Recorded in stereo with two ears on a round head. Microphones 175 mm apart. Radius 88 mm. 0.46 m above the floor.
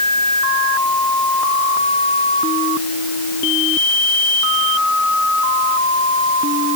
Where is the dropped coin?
I don't hear a dropped coin.